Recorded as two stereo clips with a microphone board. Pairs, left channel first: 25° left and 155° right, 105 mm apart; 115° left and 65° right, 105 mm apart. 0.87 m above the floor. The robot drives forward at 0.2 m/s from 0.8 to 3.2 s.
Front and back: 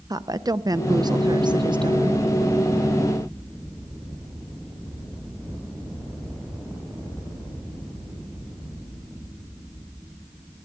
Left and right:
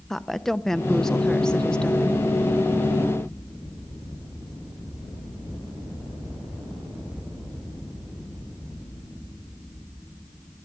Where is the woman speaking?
165° right, 0.6 m; by 2.2 s 170° right, 0.8 m.